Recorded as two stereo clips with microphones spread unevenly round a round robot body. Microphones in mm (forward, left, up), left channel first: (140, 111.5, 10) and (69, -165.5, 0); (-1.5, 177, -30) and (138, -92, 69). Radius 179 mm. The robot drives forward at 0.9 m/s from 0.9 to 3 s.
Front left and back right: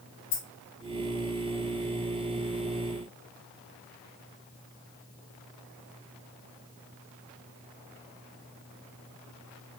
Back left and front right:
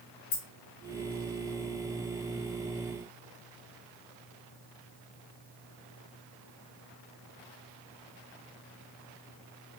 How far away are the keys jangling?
About 1.9 m.